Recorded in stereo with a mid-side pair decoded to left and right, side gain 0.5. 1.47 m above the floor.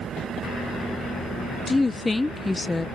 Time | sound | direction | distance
1.7 | a woman speaking | 15° left | ?